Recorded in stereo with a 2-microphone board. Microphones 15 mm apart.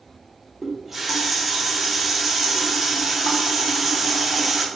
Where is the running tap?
20° right (ahead or behind), 0.7 m.